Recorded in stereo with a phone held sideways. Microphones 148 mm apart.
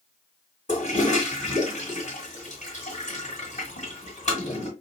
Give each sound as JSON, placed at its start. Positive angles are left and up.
{"t": 0.7, "sound": "a toilet flushing", "side_deg": 55, "distance_m": 1.7}